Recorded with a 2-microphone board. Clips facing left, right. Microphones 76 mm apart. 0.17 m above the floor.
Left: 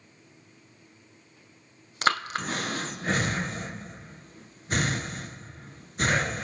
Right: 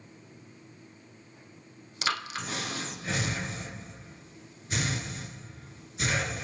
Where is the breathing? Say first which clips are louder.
Left 6 dB; 50° left (ahead or behind), 0.8 m.